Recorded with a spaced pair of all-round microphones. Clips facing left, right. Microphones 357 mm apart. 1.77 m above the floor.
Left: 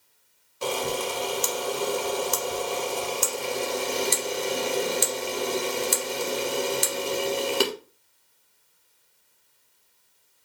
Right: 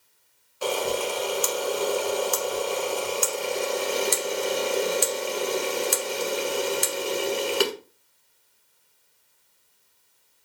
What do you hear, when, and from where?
0.6 s a camera shutter: 30° left (ahead or behind), 0.9 m